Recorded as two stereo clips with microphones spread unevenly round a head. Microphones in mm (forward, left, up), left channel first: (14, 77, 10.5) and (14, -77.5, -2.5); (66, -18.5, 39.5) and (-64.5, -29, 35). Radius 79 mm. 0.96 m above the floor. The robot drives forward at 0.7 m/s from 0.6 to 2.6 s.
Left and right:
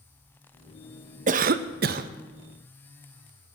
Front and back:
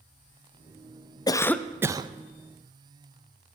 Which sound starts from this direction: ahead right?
A cough, at 1.3 s.